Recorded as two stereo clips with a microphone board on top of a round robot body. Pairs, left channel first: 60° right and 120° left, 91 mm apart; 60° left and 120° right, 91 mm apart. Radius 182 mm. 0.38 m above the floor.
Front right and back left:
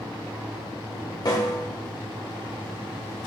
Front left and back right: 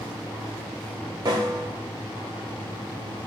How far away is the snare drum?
About 0.9 m.